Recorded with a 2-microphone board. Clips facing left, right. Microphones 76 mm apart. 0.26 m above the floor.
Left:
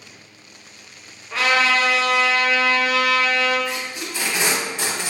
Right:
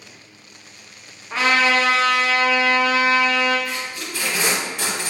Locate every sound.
1.3 s a trumpet: 25° right (ahead or behind), 0.6 m
3.7 s tape being pulled: 20° left (ahead or behind), 0.6 m